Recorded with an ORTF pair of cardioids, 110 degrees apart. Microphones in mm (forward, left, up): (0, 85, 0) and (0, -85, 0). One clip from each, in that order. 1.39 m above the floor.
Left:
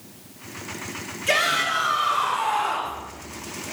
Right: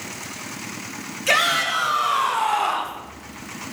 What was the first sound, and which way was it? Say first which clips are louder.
A shout: right 2 dB; 35° right.